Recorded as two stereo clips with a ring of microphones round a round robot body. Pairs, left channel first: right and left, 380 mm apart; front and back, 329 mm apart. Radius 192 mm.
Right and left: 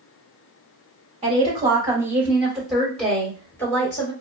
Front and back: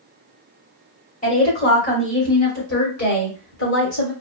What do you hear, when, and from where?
1.2 s a woman speaking: 35° left, 1.6 m; by 4.1 s 10° right, 2.5 m